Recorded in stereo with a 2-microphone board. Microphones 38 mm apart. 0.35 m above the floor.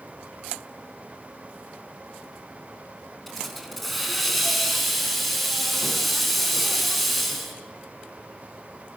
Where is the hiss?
Centre (ahead or behind), 4 m.